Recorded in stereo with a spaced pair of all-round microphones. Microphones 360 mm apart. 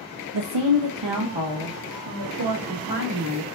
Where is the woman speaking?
80° right, 0.5 m; by 3.5 s 75° right (ahead or behind), 2.5 m.